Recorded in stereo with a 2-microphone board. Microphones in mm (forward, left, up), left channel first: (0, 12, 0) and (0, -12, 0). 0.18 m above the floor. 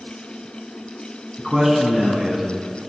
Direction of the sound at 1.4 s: 10° right (ahead or behind).